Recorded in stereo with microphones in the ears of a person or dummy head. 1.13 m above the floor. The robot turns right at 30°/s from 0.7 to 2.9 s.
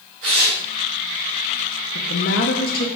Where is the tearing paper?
75° right (ahead or behind), 1.9 m.